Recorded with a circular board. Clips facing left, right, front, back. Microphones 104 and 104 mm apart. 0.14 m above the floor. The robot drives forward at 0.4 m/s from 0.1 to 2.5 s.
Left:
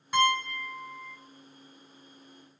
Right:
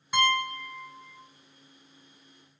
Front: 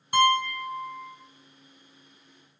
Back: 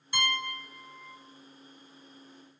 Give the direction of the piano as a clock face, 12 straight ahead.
12 o'clock.